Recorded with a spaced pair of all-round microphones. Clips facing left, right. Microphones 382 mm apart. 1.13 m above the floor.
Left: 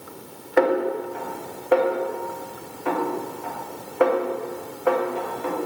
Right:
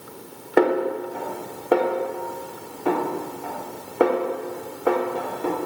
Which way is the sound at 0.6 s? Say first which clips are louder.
Right 1 dB; 50° right (ahead or behind).